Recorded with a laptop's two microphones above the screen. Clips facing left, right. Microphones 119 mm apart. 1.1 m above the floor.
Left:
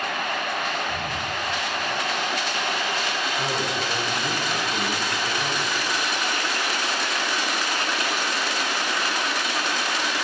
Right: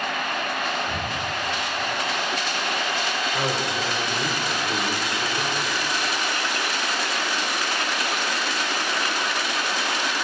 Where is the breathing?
80° right, 3.5 m.